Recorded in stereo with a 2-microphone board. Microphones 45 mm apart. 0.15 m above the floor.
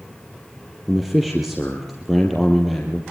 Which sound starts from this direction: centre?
A man speaking, at 0.9 s.